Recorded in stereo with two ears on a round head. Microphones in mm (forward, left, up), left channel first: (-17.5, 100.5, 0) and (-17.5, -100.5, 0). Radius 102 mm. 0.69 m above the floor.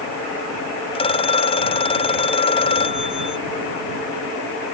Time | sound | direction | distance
0.9 | a phone ringing | 25° left (ahead or behind) | ?